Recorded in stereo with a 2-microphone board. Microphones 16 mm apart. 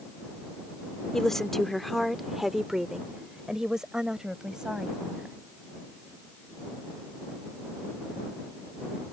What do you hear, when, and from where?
1.1 s a woman speaking: 35° left (ahead or behind); by 5.3 s 60° right (ahead or behind)